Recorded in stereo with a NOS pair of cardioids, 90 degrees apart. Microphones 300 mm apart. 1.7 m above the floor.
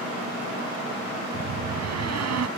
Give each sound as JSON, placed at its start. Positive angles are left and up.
{"t": 1.3, "sound": "a door slam", "azimuth_deg": -60}